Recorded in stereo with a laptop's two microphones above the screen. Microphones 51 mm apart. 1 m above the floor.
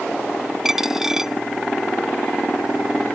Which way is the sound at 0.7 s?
10° right (ahead or behind).